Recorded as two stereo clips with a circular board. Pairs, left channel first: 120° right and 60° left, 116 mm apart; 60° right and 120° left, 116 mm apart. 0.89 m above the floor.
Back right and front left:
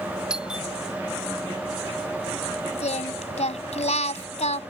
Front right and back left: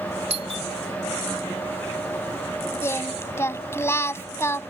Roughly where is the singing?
Behind right.